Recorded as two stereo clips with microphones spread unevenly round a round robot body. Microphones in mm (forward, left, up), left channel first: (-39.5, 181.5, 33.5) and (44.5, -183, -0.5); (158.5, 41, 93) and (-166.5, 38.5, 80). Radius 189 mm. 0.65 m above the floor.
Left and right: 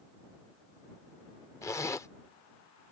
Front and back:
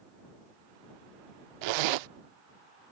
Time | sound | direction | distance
1.6 | a zipper | 175° right | ?